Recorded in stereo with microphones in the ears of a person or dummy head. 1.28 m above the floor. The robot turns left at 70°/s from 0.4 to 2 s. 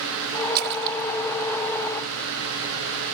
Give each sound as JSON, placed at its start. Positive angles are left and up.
{"t": 0.6, "sound": "a splash", "side_deg": -50}